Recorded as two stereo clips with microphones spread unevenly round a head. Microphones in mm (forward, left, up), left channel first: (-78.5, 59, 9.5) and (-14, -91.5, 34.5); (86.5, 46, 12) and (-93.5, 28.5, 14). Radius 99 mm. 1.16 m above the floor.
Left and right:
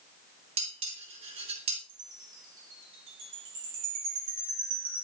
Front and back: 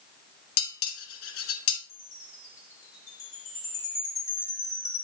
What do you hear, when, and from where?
0.6 s dishes clattering: 5° right, 1.3 m
1.9 s a chime: 70° right, 3 m